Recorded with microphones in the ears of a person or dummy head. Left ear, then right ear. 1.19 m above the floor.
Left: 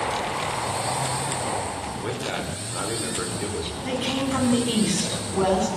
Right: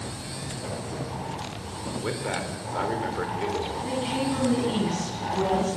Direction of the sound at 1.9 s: 10° right (ahead or behind).